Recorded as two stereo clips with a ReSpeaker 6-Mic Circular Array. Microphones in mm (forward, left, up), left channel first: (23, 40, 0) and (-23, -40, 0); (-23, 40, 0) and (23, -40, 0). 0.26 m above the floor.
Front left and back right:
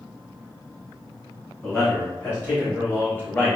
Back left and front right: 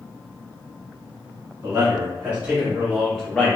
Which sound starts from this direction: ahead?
A man speaking, at 1.6 s.